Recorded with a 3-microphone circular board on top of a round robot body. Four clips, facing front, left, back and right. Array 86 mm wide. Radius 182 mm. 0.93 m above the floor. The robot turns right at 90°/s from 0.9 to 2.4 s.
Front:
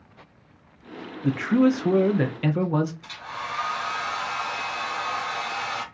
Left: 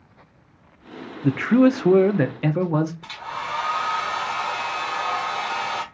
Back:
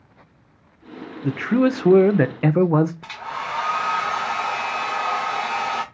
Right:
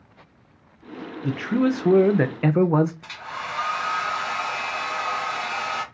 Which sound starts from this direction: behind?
A hair dryer, at 3.0 s.